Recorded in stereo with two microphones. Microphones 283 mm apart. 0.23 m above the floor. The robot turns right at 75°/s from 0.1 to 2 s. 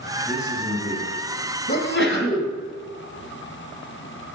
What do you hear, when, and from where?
0.2 s a man speaking: 165° right, 3 m; by 1.1 s 100° right, 3 m
1.7 s a sneeze: 30° left (ahead or behind), 2.0 m; by 2.5 s 45° left (ahead or behind), 2.0 m